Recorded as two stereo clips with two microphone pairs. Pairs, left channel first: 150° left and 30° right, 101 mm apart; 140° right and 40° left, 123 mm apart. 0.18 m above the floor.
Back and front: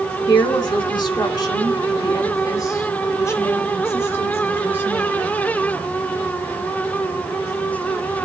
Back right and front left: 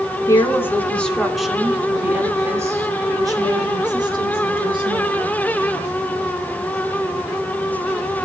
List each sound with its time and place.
0.3 s a woman speaking: 165° left, 2.5 m; by 5.4 s 80° left, 5.5 m